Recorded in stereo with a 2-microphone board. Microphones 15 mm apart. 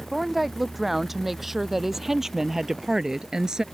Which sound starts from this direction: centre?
A woman speaking, at 0.1 s.